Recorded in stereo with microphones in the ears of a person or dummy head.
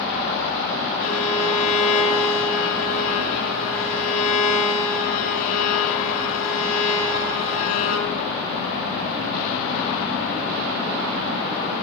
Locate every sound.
1.0 s a violin: 80° left, 6.5 m